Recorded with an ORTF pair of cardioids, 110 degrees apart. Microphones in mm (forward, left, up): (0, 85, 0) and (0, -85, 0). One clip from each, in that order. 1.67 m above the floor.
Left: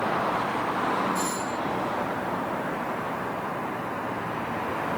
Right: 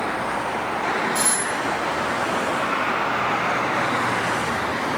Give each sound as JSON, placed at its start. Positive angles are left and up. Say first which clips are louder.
{"t": 1.1, "sound": "a doorbell", "louder": "right 5 dB", "azimuth_deg": -65}